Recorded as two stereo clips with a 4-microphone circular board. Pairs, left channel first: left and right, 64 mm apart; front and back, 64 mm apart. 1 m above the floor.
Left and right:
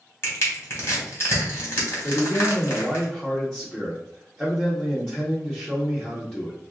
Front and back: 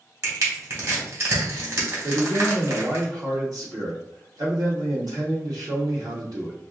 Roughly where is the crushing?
Behind left.